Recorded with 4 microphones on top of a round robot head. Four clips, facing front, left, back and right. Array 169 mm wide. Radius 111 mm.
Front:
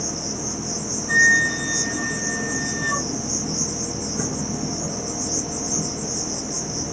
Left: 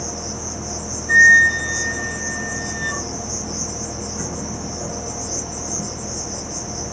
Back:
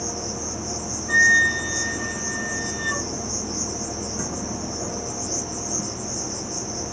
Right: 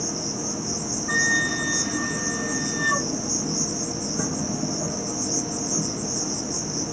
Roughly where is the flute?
Right.